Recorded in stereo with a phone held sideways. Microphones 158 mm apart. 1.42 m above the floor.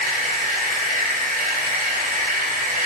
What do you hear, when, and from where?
0.0 s a machine running: 65° right (ahead or behind), 2.5 m